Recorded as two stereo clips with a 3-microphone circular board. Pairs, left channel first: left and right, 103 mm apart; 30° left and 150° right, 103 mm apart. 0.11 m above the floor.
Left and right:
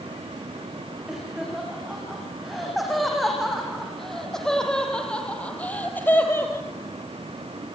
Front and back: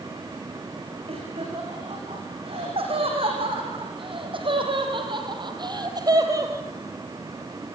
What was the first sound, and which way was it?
Laughter, 175° right.